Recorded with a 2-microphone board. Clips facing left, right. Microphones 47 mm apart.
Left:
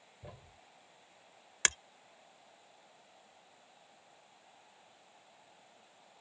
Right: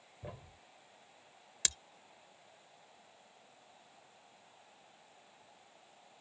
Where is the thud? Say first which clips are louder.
Right 4 dB; 15° right (ahead or behind).